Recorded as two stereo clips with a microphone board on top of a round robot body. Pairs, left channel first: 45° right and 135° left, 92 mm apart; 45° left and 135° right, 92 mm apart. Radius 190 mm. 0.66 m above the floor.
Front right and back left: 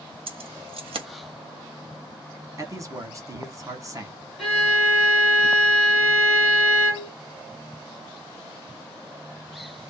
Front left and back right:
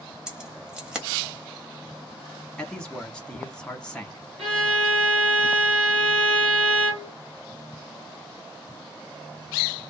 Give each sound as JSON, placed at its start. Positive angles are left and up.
{"t": 0.3, "sound": "keys jangling", "azimuth_deg": 145, "distance_m": 1.0}
{"t": 2.6, "sound": "a man speaking", "azimuth_deg": 120, "distance_m": 1.3}
{"t": 4.4, "sound": "a violin", "azimuth_deg": -140, "distance_m": 0.9}